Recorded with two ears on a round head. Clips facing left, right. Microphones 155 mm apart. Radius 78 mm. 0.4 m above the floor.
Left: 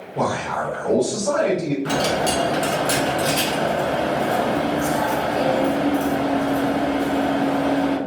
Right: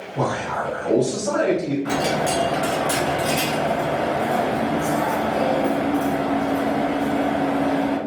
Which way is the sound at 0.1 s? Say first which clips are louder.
Left 1 dB; 25° left (ahead or behind).